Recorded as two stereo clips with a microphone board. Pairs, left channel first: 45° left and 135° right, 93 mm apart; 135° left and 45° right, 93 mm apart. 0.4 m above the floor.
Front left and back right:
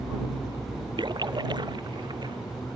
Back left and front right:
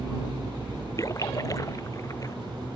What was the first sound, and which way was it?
A splash, 170° right.